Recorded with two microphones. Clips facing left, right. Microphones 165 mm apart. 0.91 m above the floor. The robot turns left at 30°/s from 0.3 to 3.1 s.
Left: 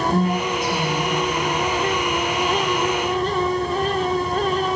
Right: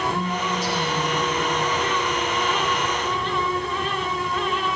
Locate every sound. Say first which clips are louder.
0.1 s a woman speaking: left 5 dB; 45° left (ahead or behind), 5.5 m; by 1.2 s 70° left (ahead or behind), 5.5 m